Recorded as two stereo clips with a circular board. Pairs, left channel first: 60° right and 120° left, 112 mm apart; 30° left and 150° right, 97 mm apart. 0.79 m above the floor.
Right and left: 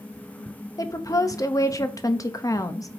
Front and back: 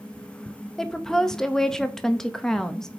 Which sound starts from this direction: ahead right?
A woman speaking, at 0.8 s.